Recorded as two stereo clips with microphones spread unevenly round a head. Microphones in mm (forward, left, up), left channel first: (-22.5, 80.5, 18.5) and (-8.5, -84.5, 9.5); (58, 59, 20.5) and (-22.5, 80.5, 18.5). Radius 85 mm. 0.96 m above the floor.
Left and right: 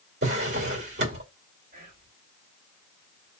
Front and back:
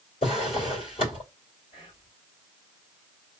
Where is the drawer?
55° right, 2 m.